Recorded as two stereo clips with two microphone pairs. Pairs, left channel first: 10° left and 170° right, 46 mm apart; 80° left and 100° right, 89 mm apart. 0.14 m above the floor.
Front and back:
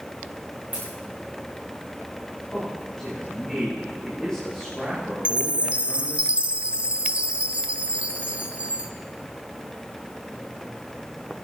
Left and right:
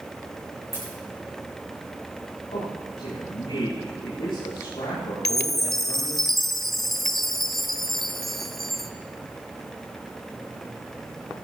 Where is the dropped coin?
130° left, 5 m.